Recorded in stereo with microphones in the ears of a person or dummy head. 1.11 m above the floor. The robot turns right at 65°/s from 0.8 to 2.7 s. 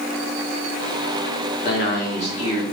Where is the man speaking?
95° left, 1.0 m; by 2.6 s 160° left, 1.0 m.